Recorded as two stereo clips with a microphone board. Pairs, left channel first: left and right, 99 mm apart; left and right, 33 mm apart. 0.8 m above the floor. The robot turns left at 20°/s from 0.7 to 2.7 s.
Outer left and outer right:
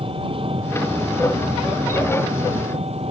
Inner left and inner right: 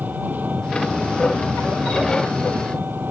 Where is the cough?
I don't hear a cough.